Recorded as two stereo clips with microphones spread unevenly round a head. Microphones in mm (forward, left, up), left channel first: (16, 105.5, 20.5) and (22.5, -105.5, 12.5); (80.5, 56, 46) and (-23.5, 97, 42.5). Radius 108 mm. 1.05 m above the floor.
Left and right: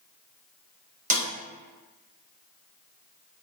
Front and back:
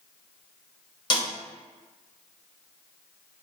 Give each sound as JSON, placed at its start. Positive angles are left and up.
{"t": 1.1, "sound": "a snare drum", "azimuth_deg": -55, "distance_m": 0.9}